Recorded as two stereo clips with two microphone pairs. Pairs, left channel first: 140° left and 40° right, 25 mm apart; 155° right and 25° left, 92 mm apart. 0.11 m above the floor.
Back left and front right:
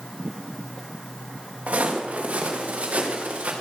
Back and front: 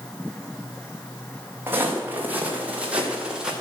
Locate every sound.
1.7 s footsteps: 40° right, 4.5 m; by 3.5 s 55° right, 5 m